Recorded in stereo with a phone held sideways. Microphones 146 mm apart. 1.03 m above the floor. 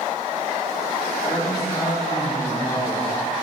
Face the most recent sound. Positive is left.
turn(degrees=25)  # may be behind; listen again after turning